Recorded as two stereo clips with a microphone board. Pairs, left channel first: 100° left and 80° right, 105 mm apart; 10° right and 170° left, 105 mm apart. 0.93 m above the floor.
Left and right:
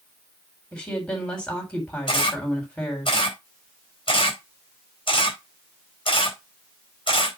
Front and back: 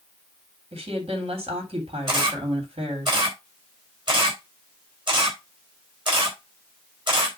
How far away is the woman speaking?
About 3.5 m.